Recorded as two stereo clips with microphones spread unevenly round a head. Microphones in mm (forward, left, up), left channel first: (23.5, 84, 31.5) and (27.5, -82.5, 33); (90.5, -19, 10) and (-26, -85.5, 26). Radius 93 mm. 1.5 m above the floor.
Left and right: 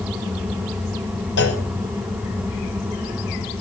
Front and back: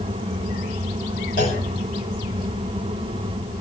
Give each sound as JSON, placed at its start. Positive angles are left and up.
{"t": 1.4, "sound": "a clunk", "azimuth_deg": 75, "distance_m": 5.5}